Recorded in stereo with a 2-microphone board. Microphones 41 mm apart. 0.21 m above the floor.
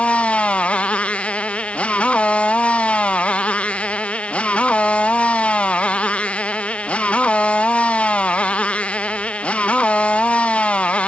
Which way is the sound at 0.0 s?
30° left (ahead or behind).